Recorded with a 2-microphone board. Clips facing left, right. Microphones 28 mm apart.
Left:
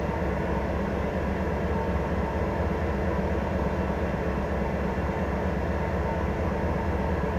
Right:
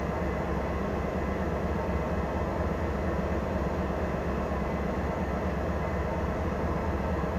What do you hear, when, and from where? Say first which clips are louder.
0.0 s an engine running: left 2 dB; 80° left, 1.8 m